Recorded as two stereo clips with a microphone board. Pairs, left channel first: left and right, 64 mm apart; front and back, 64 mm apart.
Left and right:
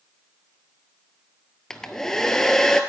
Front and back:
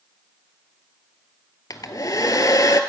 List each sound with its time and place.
1.7 s a hair dryer: 10° left, 0.7 m